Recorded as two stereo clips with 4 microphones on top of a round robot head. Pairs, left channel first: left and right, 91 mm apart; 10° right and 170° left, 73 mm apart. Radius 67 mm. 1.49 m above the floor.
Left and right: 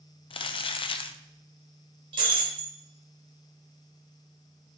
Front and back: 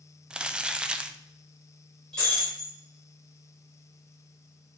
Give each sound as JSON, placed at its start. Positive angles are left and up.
{"t": 0.3, "sound": "crumpling", "azimuth_deg": 90, "distance_m": 0.6}
{"t": 2.1, "sound": "breaking glass", "azimuth_deg": -95, "distance_m": 1.5}